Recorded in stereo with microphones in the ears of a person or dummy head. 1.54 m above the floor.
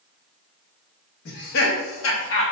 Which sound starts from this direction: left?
Laughter, at 1.2 s.